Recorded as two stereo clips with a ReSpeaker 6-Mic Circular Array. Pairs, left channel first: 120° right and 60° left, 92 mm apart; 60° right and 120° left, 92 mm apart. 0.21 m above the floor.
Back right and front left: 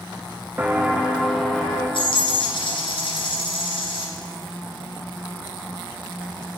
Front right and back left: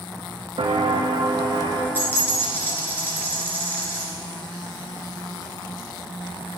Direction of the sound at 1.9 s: 130° right.